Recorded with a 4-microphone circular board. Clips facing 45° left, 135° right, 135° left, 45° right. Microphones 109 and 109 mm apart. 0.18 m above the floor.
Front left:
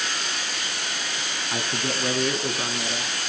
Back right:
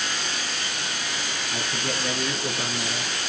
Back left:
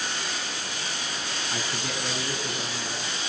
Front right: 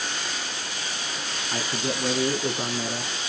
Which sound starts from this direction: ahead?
A man speaking, at 1.5 s.